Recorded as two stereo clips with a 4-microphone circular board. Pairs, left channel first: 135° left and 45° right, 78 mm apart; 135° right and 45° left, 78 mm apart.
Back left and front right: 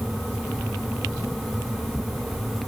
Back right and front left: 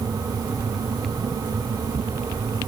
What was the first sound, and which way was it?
Only background noise.